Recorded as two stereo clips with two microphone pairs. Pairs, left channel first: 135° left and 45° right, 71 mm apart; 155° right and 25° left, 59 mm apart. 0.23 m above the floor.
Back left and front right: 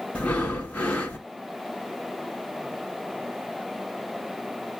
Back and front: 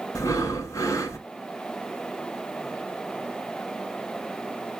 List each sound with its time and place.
0.1 s breathing: 155° right, 1.3 m